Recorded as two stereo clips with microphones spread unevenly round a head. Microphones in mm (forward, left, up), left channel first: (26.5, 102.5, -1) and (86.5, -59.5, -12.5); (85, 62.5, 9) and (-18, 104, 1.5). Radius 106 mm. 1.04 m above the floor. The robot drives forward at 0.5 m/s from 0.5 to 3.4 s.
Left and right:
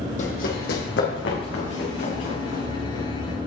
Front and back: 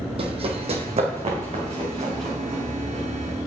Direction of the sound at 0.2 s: 140° left.